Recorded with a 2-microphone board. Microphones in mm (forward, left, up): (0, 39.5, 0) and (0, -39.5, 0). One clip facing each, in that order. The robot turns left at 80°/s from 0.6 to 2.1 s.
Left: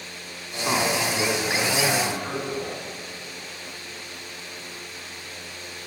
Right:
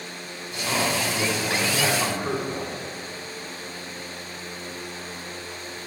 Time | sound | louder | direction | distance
0.5 | a man speaking | left 2 dB | 50° left | 1.7 m